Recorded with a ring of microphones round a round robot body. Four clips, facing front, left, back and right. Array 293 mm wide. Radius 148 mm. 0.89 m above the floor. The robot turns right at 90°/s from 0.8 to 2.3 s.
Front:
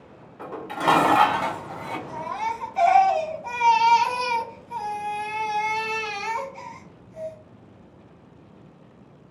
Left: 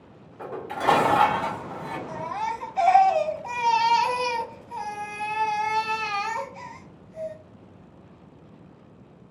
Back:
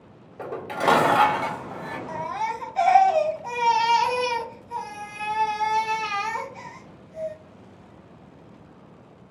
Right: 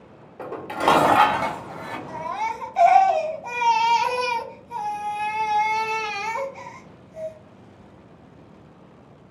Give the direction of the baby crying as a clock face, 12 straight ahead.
5 o'clock.